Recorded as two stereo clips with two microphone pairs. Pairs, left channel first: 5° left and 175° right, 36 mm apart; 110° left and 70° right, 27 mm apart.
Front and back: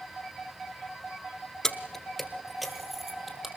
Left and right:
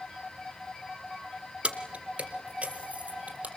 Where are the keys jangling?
70° right, 1.7 m; by 3.5 s 95° right, 4 m.